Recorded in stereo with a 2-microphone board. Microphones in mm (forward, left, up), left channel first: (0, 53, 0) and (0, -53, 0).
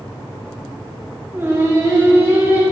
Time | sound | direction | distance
1.3 | singing | 25° right (ahead or behind) | 1.8 m